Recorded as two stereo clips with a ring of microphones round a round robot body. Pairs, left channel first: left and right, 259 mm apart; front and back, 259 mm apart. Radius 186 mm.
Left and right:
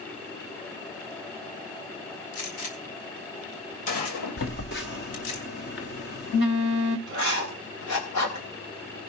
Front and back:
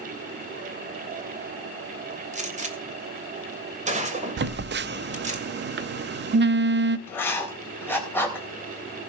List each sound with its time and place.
2.3 s a gunshot: 115° left, 2.5 m
4.4 s a phone buzzing: 140° left, 0.5 m
7.1 s writing: 80° left, 4 m